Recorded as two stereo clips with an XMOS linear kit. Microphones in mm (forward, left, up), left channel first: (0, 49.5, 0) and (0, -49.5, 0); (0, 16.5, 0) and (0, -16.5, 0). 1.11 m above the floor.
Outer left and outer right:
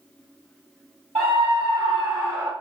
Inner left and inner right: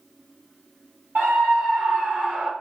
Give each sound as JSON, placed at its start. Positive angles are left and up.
{"t": 1.1, "sound": "a scream", "side_deg": -65, "distance_m": 1.5}